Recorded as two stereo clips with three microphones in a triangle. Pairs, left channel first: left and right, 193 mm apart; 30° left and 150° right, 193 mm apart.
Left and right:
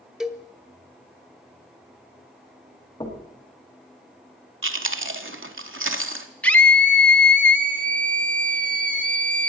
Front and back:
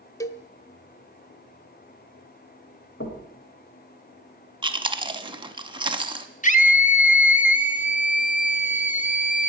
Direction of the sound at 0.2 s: 10° right.